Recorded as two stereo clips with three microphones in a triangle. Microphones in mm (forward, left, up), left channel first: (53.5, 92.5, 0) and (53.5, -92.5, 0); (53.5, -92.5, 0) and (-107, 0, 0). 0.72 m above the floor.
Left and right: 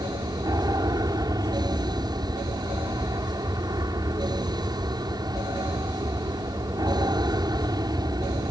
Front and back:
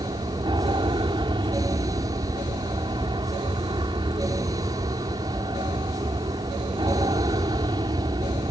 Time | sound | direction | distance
0.0 | an aircraft | 155° right | ?